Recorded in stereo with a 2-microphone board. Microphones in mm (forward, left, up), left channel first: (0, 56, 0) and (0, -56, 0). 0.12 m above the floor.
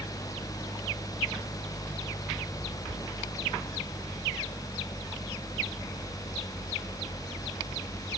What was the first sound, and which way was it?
Only background noise.